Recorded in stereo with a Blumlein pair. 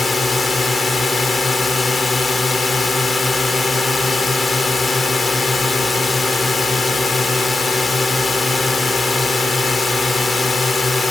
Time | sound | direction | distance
0.0 | a drone | 10° left | ?